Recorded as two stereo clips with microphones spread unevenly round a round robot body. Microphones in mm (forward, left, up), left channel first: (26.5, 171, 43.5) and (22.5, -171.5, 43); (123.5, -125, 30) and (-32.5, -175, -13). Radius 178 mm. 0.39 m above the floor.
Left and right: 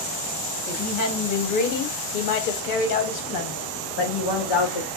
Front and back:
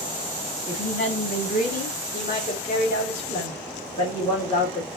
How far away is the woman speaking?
About 2.5 m.